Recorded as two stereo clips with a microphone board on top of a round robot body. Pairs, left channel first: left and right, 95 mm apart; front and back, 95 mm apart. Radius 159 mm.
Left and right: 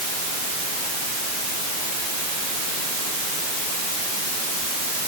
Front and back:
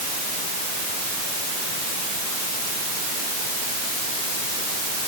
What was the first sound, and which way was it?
Only background noise.